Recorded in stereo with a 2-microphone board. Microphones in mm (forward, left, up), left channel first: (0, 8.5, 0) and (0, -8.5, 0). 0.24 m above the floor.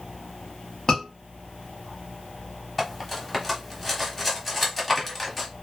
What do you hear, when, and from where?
0.9 s a scream: 40° left (ahead or behind), 1.4 m
2.8 s cutlery clinking: 10° left (ahead or behind), 1.0 m